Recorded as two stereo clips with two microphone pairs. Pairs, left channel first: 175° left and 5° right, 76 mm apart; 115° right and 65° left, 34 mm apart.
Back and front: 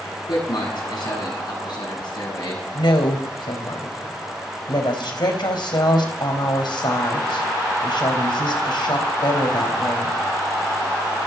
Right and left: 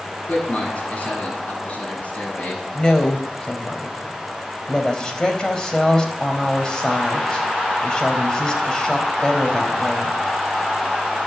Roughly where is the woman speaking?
Behind.